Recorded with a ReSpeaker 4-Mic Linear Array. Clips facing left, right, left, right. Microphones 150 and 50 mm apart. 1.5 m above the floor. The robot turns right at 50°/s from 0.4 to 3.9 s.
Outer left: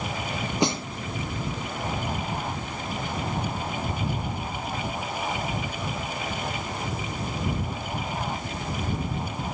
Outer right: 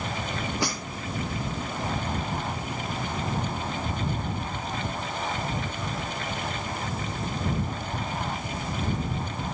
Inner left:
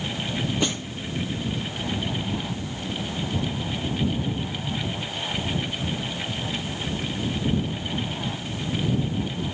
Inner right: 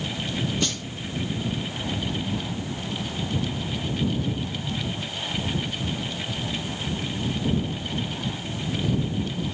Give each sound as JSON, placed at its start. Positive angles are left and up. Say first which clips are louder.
{"t": 0.6, "sound": "a snare drum", "louder": "outer left 9 dB, inner left 2 dB", "side_deg": 20}